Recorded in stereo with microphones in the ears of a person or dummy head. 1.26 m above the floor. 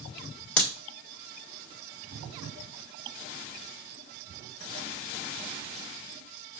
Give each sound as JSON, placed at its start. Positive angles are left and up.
{"t": 0.6, "sound": "a crack", "side_deg": 5, "distance_m": 1.6}